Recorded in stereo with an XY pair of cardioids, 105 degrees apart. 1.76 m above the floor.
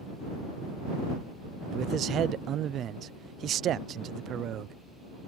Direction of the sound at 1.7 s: 65° right.